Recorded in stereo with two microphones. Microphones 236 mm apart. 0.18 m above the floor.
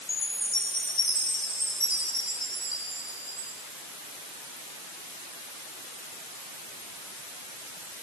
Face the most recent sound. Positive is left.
turn(degrees=60)  # may be behind; listen again after turning